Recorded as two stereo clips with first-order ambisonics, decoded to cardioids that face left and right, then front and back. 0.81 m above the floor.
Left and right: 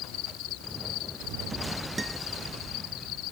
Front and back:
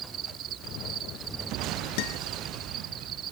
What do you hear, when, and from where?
0.0 s an insect: 125° left
2.0 s a guitar: 5° right